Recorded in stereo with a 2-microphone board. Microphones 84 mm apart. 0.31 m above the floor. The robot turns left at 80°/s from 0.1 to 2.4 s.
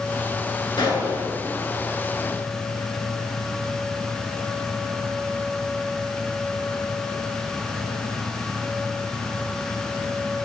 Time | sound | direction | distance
0.8 | a gunshot | 65° left | 2 m